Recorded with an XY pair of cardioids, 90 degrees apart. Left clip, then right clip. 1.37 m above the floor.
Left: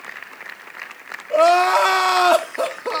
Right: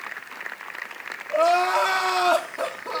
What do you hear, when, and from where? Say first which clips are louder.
1.3 s crying: left 5 dB; 70° left, 1.2 m